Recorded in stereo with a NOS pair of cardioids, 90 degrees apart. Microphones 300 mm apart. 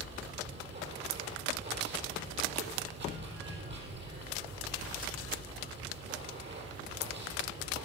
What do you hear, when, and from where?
0.0 s running water: 40° right, 4 m